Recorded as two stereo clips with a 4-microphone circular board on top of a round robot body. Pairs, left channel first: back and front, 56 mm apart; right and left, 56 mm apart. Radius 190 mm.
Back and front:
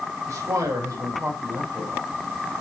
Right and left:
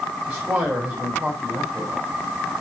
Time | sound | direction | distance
0.3 | a man speaking | 35° left | 3.5 m